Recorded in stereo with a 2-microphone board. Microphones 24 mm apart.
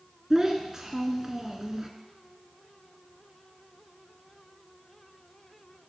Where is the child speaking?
25° right (ahead or behind), 0.7 m.